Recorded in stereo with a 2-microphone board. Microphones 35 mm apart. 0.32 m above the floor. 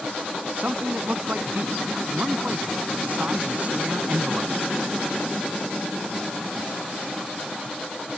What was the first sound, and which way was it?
A man speaking, 45° right (ahead or behind).